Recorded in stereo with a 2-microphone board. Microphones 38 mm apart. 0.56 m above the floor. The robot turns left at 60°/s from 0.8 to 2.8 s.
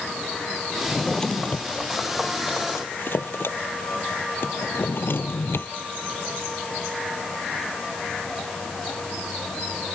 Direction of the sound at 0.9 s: Centre (ahead or behind).